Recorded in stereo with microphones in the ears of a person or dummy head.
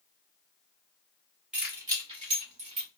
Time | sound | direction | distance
1.5 | keys jangling | 5° right (ahead or behind) | 0.9 m